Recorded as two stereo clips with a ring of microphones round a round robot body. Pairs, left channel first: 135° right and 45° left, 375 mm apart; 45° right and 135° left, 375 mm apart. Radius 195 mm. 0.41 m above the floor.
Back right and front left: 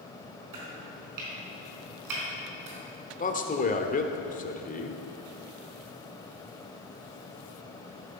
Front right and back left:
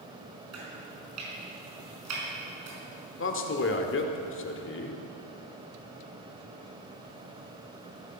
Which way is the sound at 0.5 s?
85° left.